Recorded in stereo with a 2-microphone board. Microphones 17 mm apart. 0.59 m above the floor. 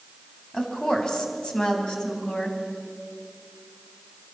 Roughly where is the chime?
I don't hear a chime.